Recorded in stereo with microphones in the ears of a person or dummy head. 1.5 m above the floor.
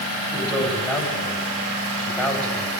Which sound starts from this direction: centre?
A man speaking, at 0.3 s.